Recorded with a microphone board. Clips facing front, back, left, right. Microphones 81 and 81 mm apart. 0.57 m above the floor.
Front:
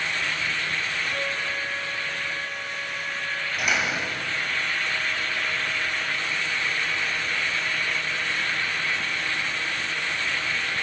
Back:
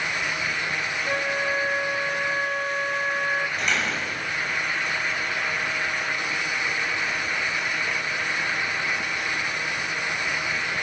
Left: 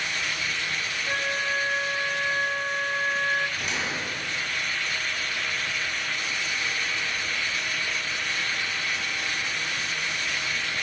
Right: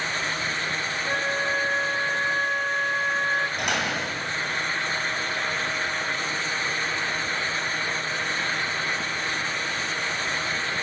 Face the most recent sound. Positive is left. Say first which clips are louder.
# even, right 4 dB
turn(degrees=-80)